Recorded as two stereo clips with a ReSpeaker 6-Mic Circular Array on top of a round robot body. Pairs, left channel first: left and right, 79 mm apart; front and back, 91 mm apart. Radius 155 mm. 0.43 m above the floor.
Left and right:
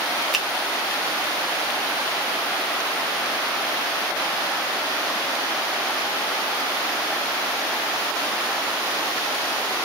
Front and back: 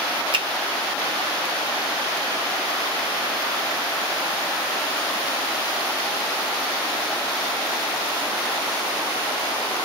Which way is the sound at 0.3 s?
Straight behind.